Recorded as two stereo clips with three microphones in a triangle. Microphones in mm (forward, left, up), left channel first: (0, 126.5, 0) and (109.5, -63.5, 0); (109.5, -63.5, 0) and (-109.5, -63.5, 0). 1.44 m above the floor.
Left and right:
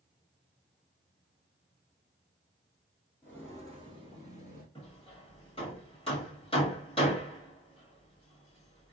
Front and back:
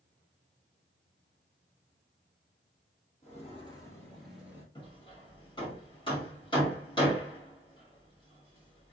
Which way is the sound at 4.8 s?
60° left.